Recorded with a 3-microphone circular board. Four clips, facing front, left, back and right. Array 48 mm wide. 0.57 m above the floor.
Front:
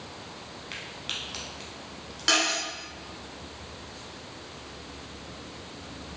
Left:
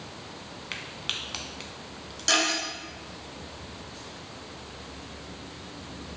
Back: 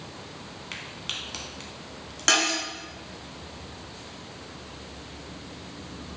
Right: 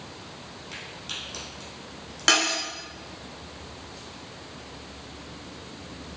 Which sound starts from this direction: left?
A crack, at 0.7 s.